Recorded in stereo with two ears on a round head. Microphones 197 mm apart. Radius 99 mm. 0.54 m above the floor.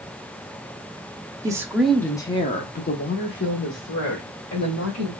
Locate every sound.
1.4 s a woman speaking: 15° right (ahead or behind), 0.7 m; by 5.1 s 60° left (ahead or behind), 1.8 m